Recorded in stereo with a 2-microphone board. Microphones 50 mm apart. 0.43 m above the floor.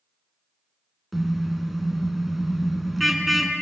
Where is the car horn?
Centre (ahead or behind), 2.5 m.